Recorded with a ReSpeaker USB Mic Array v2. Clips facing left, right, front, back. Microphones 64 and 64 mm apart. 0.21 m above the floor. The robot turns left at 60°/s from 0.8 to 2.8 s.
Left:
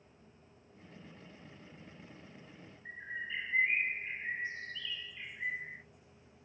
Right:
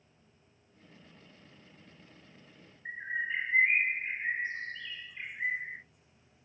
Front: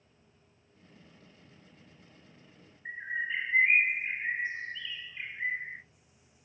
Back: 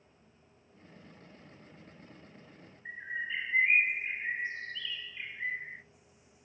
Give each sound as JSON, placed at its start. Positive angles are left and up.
{"t": 2.9, "sound": "a bird", "azimuth_deg": -60, "distance_m": 0.5}